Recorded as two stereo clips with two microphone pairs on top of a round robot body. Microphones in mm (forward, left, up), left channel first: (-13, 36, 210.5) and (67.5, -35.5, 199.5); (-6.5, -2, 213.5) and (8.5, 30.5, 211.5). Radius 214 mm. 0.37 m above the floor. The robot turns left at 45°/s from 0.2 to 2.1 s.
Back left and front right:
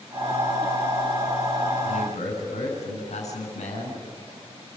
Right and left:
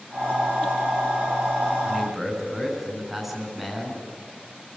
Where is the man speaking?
160° left, 6.5 m; by 4.0 s 145° left, 6.5 m.